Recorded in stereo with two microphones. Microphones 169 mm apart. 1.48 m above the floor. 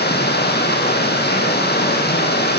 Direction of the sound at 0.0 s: 75° left (ahead or behind).